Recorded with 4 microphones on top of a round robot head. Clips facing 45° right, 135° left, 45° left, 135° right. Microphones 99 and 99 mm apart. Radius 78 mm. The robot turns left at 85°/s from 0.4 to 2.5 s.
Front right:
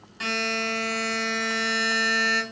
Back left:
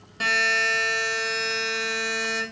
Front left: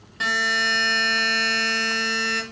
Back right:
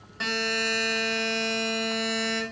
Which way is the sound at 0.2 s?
130° left.